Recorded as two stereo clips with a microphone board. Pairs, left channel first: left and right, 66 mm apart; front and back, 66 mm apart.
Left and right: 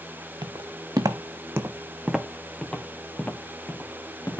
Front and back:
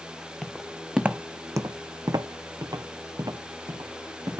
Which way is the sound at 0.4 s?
85° right.